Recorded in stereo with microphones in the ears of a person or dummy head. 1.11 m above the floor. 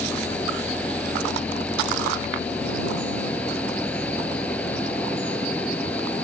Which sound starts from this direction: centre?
An engine running, at 0.0 s.